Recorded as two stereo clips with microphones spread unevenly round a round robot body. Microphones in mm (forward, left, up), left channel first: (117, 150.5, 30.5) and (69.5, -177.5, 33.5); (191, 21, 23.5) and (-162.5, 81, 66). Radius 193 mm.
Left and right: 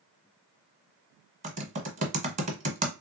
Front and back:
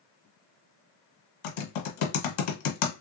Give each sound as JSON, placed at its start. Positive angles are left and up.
{"t": 1.4, "sound": "typing on a keyboard", "azimuth_deg": -30, "distance_m": 1.2}